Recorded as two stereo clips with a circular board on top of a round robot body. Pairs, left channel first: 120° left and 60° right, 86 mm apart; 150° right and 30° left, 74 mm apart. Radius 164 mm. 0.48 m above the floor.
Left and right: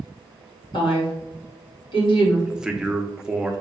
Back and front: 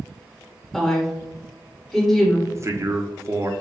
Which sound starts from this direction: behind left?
A woman speaking, at 0.7 s.